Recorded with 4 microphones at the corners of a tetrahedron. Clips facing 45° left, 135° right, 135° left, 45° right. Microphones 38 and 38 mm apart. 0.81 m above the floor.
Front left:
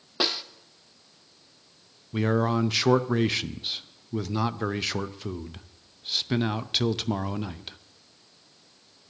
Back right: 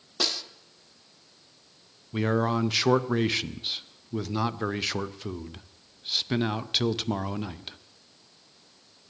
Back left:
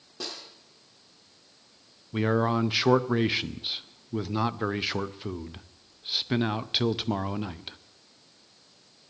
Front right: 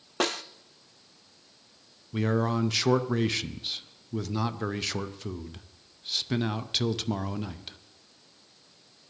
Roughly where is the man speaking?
Behind left.